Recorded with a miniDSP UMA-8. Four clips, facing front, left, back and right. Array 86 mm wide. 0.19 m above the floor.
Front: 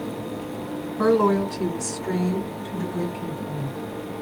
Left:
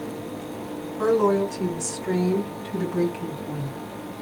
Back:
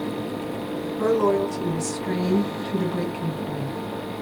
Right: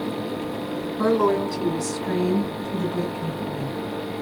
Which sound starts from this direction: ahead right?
A woman speaking, at 1.0 s.